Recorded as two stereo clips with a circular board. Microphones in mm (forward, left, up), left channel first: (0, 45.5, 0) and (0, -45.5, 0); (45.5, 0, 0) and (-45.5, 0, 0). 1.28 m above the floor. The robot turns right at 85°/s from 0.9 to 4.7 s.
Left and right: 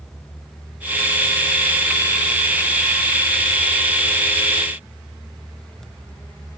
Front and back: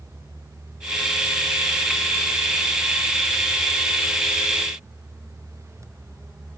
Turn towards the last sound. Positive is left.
No sound to turn to.